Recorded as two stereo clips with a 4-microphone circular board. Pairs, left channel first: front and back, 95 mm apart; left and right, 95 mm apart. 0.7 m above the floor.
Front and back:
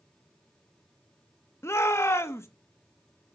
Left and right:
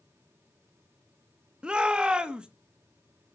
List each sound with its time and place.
1.6 s a shout: 20° right, 1.1 m